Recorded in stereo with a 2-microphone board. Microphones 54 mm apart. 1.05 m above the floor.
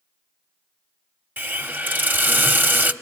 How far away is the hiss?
About 1.0 m.